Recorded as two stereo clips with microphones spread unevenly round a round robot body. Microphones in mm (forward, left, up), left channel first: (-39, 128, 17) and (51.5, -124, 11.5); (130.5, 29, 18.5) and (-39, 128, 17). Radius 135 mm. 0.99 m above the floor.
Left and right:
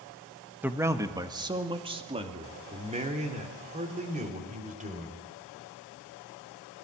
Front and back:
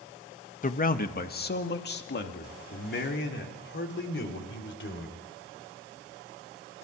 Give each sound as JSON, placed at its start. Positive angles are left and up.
{"t": 0.6, "sound": "a man speaking", "azimuth_deg": 10, "distance_m": 1.3}